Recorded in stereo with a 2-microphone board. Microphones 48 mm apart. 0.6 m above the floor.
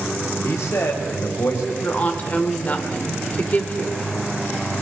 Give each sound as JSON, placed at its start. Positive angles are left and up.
{"t": 0.4, "sound": "a man speaking", "side_deg": 70, "distance_m": 3.5}
{"t": 1.8, "sound": "a woman speaking", "side_deg": 35, "distance_m": 1.9}